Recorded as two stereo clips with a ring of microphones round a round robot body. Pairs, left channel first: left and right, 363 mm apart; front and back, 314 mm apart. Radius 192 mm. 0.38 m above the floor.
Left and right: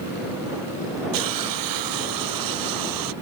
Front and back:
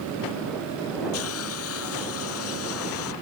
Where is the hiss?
55° right.